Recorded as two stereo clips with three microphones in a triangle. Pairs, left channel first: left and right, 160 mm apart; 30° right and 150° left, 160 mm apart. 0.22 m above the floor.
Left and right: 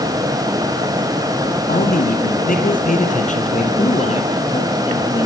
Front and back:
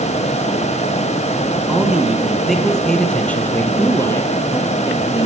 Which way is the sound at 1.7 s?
70° left.